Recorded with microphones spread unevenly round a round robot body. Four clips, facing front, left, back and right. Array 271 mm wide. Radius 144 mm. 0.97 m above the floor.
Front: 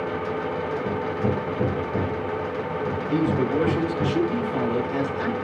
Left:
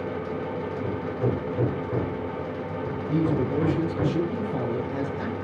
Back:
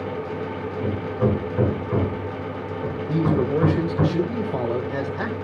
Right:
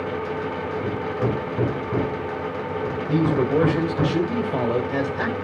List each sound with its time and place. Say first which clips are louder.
0.8 s hammering: right 2 dB, back 5 dB; 140° right, 8 m
3.1 s a man speaking: right 4 dB, back 2 dB; 105° right, 3.5 m